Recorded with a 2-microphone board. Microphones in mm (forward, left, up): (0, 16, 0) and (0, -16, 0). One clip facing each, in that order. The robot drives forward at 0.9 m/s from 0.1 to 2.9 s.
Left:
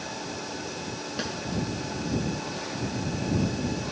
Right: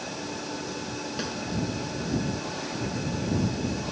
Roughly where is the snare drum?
Centre.